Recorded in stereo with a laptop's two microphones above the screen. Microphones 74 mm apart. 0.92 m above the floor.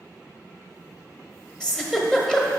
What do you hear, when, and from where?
1.6 s a giggle: 10° left (ahead or behind), 1.2 m